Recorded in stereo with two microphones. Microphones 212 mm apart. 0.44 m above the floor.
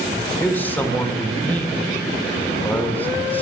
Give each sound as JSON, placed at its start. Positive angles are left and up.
{"t": 0.4, "sound": "a man speaking", "side_deg": 10, "distance_m": 0.9}